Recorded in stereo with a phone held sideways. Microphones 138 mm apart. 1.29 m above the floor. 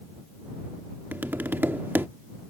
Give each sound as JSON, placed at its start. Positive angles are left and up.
{"t": 1.1, "sound": "tapping", "side_deg": -15}